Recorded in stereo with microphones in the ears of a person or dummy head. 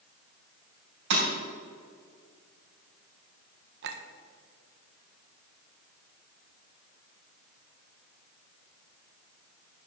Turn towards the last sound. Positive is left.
turn(degrees=-60)  # may be behind; listen again after turning